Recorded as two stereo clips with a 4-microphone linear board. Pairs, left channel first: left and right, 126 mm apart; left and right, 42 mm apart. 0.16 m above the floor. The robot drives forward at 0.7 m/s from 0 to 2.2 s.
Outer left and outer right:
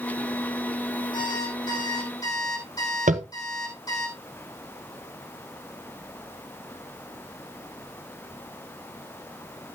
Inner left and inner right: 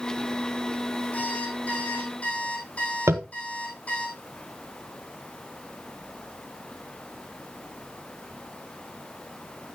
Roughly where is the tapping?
Right.